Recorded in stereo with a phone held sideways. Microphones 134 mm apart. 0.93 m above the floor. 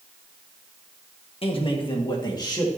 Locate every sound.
1.4 s a man speaking: 45° left (ahead or behind), 1.4 m; by 2.7 s 30° left (ahead or behind), 1.9 m